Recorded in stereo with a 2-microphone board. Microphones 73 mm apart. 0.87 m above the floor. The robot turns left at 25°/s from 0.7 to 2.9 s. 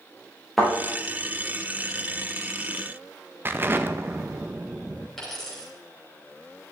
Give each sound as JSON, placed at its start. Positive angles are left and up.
{"t": 0.6, "sound": "a thud", "side_deg": 0, "distance_m": 4.5}
{"t": 3.5, "sound": "an explosion", "side_deg": -30, "distance_m": 0.6}
{"t": 5.2, "sound": "a dropped coin", "side_deg": 5, "distance_m": 4.0}